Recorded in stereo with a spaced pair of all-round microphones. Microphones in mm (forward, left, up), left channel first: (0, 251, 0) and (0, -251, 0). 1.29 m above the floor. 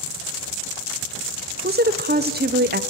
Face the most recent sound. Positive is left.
turn(degrees=-20)  # may be behind; listen again after turning